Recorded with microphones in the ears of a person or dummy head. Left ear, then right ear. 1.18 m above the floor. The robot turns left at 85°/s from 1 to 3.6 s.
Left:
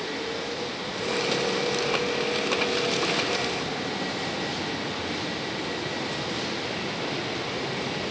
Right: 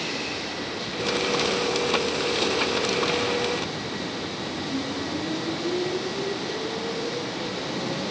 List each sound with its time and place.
Only background noise.